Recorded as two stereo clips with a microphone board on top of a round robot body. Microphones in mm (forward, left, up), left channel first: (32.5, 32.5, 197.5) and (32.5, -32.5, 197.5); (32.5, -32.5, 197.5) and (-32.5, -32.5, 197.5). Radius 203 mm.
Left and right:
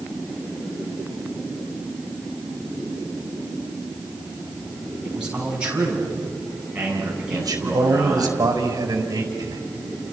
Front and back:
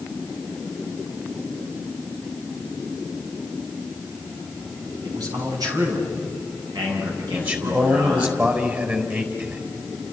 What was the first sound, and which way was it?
A man speaking, 165° right.